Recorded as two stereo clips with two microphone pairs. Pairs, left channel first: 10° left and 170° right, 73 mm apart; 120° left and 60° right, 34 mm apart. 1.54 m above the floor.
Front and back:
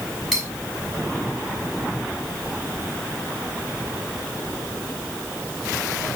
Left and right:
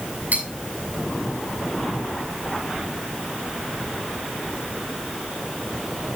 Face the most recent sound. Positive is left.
turn(degrees=-75)